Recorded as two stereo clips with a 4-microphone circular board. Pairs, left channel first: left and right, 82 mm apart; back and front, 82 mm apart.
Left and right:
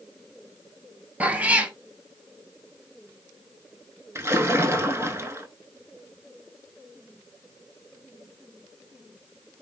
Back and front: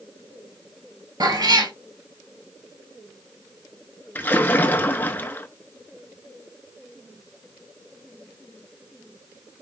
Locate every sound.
1.2 s a cat meowing: 20° right, 1.0 m
4.2 s a splash: 125° right, 0.7 m